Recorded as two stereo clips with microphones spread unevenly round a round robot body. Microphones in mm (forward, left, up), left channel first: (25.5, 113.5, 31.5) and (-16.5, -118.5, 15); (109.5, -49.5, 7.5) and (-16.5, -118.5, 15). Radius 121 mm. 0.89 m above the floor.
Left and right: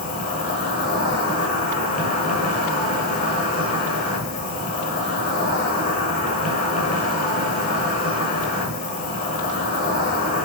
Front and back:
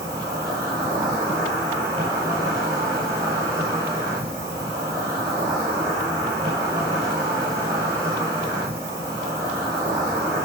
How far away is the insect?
About 6.5 m.